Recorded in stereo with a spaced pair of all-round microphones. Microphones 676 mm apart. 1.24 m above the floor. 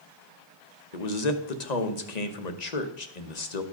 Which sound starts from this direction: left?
A man speaking, at 0.9 s.